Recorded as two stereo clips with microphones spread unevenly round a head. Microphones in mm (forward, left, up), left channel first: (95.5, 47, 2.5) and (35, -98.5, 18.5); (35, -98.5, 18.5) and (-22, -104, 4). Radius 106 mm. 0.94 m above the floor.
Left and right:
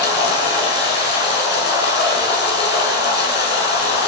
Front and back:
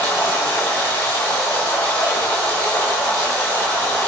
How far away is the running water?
About 7.5 m.